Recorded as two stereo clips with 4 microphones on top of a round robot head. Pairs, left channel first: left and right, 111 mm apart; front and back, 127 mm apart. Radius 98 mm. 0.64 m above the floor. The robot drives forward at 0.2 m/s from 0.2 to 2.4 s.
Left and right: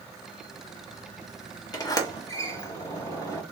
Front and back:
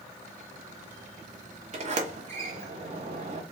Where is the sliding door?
145° left, 1.0 m; by 3.4 s 150° left, 1.1 m.